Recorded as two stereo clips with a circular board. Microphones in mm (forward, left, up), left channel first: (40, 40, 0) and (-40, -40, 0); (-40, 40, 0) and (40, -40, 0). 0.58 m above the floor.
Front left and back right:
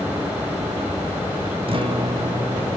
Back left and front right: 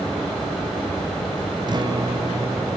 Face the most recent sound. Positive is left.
turn(degrees=-95)